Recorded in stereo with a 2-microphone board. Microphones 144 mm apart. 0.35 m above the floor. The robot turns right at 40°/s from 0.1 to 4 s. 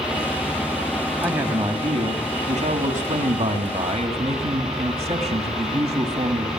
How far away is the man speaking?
About 3 m.